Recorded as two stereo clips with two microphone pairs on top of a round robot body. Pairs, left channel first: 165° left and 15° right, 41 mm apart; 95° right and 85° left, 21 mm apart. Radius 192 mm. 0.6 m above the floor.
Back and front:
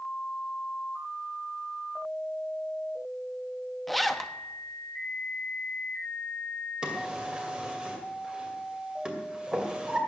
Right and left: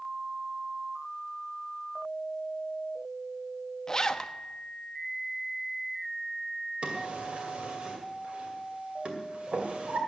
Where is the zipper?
105° right, 1.0 m.